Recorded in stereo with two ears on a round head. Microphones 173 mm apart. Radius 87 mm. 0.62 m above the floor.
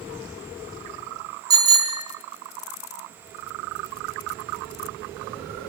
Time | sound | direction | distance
1.5 | a bicycle bell | 20° right (ahead or behind) | 5.5 m